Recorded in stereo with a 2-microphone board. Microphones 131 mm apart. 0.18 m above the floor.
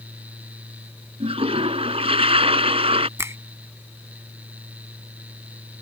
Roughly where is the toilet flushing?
Right.